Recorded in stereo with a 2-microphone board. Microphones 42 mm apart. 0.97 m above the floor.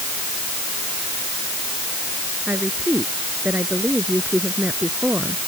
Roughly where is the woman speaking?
Right.